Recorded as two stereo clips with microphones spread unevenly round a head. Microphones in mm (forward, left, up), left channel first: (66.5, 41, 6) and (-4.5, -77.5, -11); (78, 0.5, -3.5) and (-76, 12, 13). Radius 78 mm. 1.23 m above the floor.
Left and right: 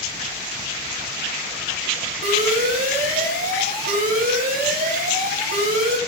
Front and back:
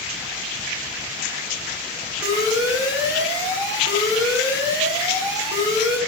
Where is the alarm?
110° right, 3 m.